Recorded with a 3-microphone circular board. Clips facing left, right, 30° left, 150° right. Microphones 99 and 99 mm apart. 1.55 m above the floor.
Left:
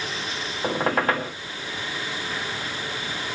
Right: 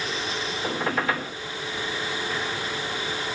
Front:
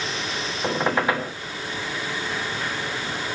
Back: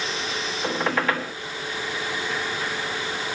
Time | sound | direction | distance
0.6 | a squeak | 95° left | 1.2 m